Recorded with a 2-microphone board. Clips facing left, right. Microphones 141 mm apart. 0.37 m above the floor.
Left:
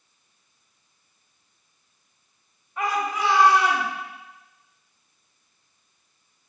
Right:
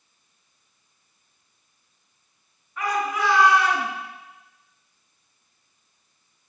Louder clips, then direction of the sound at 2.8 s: Even; 25° left (ahead or behind).